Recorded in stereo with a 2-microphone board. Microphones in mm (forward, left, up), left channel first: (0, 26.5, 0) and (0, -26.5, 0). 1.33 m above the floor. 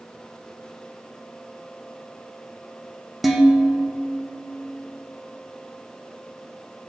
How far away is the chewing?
I don't hear chewing.